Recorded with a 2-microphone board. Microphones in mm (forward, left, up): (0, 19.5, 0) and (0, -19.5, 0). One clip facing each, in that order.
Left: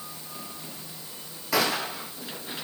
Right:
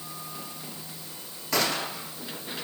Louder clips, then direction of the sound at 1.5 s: Left 2 dB; 5° left (ahead or behind).